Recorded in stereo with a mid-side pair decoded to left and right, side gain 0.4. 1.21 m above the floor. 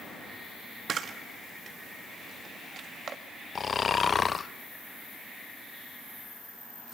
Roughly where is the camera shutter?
Ahead right.